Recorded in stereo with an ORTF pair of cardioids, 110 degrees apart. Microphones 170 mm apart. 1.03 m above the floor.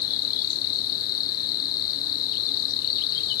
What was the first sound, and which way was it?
An insect, 65° left.